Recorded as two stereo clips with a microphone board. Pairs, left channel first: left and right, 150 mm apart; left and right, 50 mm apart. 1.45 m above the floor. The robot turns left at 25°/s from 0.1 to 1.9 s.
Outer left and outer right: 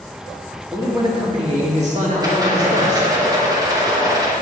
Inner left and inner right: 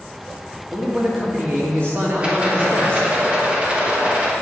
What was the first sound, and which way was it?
A man speaking, 20° right (ahead or behind).